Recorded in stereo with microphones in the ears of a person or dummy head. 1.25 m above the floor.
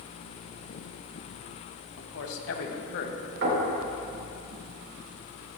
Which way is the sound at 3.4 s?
65° right (ahead or behind).